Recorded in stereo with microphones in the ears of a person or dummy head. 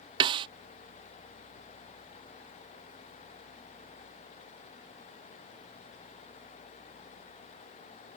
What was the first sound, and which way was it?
A snare drum, 25° right (ahead or behind).